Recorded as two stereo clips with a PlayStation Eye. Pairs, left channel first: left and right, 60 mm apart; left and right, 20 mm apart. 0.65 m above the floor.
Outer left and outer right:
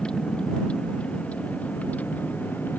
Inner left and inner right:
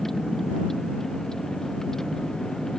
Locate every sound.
0.0 s a vehicle: 15° left (ahead or behind); by 2.8 s 30° left (ahead or behind)